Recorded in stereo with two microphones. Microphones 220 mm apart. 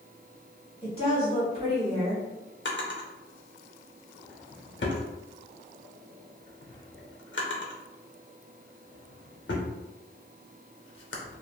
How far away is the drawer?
About 0.6 m.